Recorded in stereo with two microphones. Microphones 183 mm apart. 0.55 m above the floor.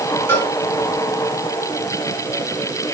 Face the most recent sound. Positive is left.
turn(degrees=10)  # may be behind; listen again after turning